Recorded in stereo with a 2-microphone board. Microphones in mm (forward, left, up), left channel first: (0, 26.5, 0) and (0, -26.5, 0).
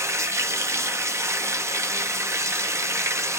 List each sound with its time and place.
0.0 s running water: 65° right (ahead or behind), 0.8 m